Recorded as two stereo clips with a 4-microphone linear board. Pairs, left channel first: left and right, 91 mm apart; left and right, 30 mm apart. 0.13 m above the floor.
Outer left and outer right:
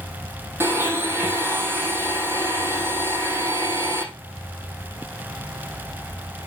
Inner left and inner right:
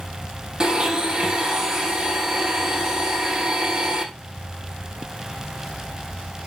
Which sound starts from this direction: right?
A blender, at 0.6 s.